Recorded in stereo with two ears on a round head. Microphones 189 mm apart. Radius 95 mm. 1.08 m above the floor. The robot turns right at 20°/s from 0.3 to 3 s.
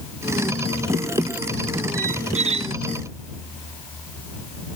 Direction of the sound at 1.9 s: 40° right (ahead or behind).